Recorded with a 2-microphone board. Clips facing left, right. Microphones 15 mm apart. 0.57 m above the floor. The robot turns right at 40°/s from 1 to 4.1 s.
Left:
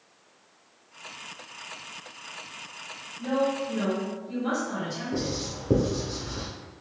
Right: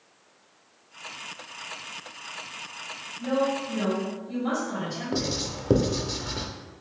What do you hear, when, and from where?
3.2 s a woman speaking: 125° left, 1.4 m; by 5.4 s 160° left, 1.4 m
5.1 s writing: 55° right (ahead or behind), 0.5 m